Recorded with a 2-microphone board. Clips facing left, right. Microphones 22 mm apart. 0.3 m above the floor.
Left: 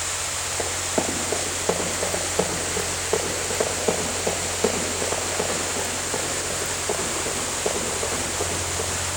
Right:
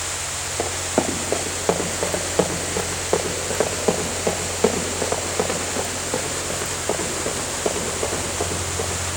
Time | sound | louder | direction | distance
0.6 | running footsteps | right 4 dB | 25° right (ahead or behind) | 4 m